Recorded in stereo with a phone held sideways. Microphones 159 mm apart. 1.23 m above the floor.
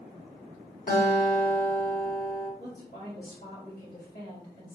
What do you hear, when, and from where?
0.9 s a guitar: 55° left (ahead or behind), 1.5 m
2.6 s a woman speaking: 75° left (ahead or behind), 1.9 m